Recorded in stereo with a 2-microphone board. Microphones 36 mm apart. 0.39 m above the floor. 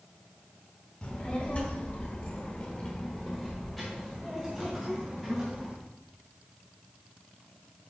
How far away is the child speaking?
About 1.6 m.